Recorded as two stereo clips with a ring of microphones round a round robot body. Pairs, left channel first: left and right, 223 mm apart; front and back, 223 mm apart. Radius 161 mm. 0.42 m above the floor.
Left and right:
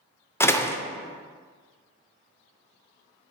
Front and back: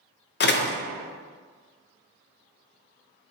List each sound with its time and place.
0.4 s a door slam: 15° left, 0.7 m